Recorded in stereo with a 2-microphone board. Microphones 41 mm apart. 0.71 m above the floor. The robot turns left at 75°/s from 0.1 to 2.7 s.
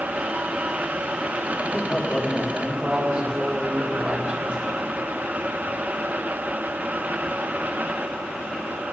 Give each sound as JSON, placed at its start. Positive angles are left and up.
{"t": 1.6, "sound": "a man speaking", "azimuth_deg": 50, "distance_m": 3.5}